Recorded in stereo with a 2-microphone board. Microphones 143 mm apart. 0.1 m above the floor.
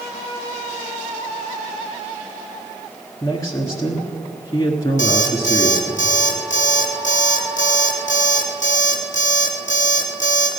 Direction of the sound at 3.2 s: 25° left (ahead or behind).